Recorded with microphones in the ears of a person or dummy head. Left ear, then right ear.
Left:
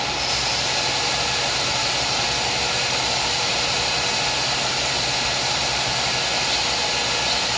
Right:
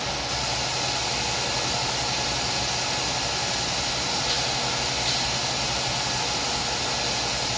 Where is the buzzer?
I don't hear a buzzer.